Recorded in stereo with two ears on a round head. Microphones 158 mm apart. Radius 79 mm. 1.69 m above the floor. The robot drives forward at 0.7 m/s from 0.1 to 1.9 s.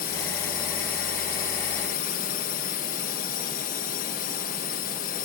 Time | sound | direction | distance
0.0 | a drone | 60° left (ahead or behind) | ?